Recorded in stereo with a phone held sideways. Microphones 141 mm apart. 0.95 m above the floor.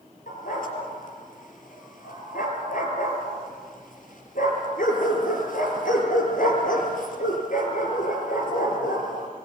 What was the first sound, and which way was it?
A dog barking, 75° left (ahead or behind).